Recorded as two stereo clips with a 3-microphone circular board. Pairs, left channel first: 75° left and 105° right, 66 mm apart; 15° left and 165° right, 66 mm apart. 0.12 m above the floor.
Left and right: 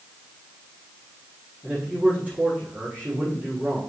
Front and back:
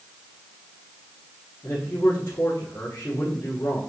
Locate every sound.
1.6 s a man speaking: 40° right, 5 m